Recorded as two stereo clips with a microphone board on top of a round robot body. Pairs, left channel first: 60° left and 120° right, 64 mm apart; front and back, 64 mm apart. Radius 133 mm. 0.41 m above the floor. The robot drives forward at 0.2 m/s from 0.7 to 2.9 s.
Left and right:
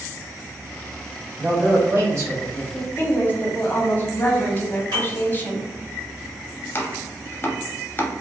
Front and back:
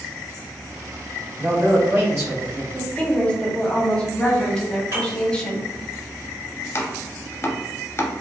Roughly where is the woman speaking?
Ahead left.